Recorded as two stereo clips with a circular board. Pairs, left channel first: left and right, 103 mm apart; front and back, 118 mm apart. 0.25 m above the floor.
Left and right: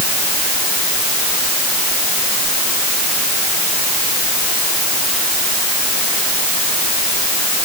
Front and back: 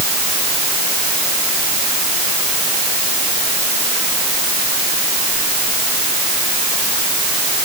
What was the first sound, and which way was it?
Only background noise.